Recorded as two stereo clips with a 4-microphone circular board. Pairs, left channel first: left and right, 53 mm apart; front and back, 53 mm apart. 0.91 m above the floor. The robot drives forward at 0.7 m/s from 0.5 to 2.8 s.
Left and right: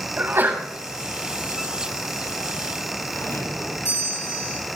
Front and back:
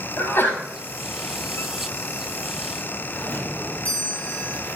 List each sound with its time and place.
0.2 s a sneeze: 45° right, 7.5 m
3.1 s a doorbell: 60° left, 7.5 m